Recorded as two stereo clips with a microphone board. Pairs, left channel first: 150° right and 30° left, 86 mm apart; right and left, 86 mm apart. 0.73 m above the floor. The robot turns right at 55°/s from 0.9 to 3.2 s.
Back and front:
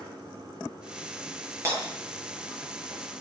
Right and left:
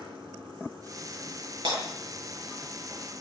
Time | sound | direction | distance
0.0 | running water | 60° left | 8.5 m
1.6 | breaking glass | 85° left | 7 m